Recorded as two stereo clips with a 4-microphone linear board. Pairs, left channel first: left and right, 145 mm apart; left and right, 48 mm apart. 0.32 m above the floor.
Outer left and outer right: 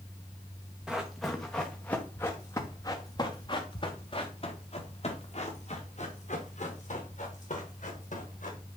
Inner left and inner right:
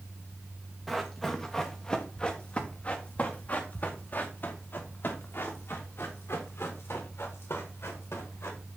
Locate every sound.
0.9 s running footsteps: 5° right (ahead or behind), 2.5 m; by 8.6 s 60° left (ahead or behind), 6 m